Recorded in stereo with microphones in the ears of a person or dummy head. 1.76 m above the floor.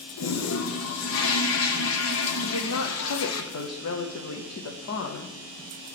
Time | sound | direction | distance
0.2 | a toilet flushing | 85° left | 1.0 m
2.4 | a woman speaking | 85° left | 0.9 m